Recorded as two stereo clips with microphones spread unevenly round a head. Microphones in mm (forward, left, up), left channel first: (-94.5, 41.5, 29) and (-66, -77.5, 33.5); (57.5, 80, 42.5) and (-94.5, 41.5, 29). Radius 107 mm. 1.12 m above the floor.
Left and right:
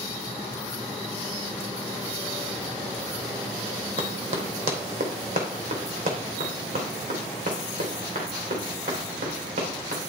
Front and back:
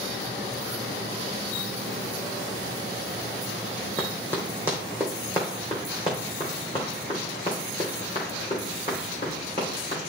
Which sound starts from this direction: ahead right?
Running footsteps, at 4.0 s.